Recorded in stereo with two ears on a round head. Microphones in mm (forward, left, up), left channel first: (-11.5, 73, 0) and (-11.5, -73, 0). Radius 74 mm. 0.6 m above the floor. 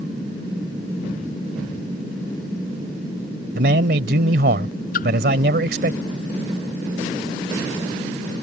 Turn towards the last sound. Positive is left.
turn(degrees=60)  # may be behind; listen again after turning